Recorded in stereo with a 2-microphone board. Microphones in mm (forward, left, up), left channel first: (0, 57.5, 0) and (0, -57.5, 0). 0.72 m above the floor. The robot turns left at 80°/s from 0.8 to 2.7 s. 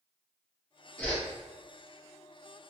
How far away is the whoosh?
About 1.1 m.